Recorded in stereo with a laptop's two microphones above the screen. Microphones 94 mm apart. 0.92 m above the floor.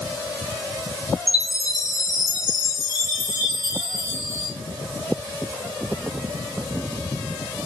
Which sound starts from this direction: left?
A chime, at 1.3 s.